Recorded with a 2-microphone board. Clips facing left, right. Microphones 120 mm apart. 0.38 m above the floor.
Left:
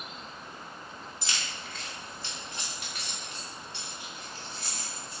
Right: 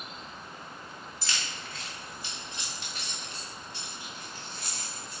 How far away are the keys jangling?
About 1.1 m.